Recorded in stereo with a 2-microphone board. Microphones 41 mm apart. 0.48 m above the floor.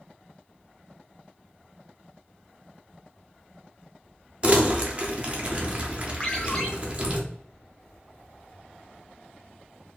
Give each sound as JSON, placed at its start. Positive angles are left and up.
{"t": 4.4, "sound": "crumpling", "side_deg": -35, "distance_m": 1.0}
{"t": 6.2, "sound": "a ringtone", "side_deg": 20, "distance_m": 1.7}